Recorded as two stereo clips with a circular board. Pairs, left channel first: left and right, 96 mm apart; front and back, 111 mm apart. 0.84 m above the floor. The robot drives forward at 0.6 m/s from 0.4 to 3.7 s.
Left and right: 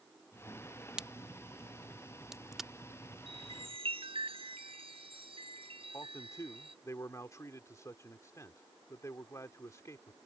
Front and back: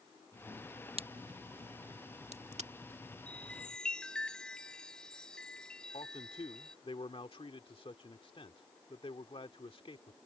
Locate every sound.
1.0 s a crack: 170° right; by 2.7 s 175° right
3.3 s a chime: 80° right; by 6.8 s 85° right
5.9 s a man speaking: 35° left